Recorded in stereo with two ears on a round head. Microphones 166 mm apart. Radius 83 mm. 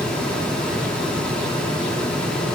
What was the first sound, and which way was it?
Only background noise.